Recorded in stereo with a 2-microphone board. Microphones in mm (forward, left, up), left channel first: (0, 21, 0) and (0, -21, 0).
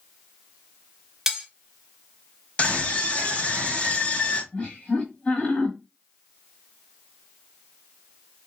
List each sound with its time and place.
1.3 s cutlery clinking: 10° right (ahead or behind), 0.7 m
2.6 s a scream: 30° left (ahead or behind), 1.1 m
4.5 s laughter: 30° left (ahead or behind), 1.2 m